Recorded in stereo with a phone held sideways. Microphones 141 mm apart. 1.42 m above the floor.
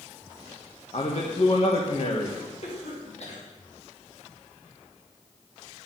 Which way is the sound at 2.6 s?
55° left (ahead or behind).